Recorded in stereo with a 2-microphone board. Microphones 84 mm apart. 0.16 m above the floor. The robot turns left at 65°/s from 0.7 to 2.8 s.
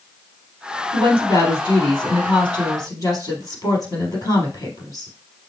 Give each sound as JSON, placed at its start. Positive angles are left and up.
{"t": 0.9, "sound": "a woman speaking", "azimuth_deg": 170, "distance_m": 3.0}